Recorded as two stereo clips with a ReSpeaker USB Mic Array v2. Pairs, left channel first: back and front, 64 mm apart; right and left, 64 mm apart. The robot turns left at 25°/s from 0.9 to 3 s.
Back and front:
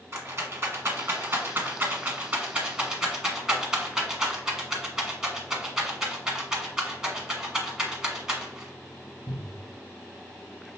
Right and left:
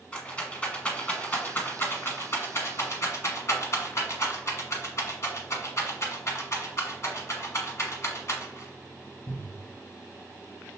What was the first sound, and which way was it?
A rattle, 30° right.